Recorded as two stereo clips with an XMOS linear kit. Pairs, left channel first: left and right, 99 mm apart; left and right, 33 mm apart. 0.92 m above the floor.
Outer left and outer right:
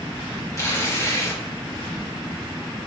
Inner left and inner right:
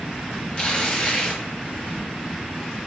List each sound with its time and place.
0.6 s tearing paper: 30° left (ahead or behind), 2.0 m